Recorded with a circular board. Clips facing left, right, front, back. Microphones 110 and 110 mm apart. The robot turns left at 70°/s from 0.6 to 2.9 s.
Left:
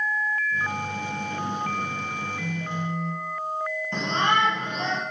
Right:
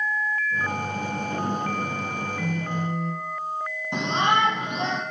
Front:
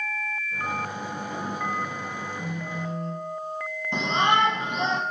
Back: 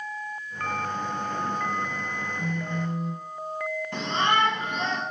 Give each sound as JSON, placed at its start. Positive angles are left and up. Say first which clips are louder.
{"t": 2.4, "sound": "a phone buzzing", "louder": "right 4 dB, back 2 dB", "azimuth_deg": -75, "distance_m": 1.6}
{"t": 3.9, "sound": "a shout", "louder": "right 2 dB, front 3 dB", "azimuth_deg": -35, "distance_m": 1.1}